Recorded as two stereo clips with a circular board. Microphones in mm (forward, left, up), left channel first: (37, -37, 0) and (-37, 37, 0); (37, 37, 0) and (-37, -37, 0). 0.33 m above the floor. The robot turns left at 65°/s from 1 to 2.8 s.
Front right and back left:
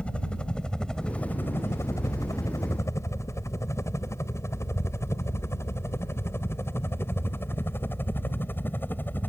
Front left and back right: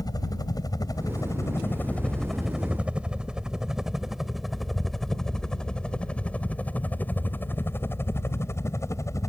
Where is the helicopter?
30° left; by 9.3 s 10° left.